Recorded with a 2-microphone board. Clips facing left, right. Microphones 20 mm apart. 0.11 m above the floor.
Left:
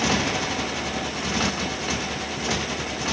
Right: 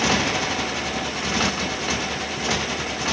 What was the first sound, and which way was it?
A motorcycle, 10° right (ahead or behind).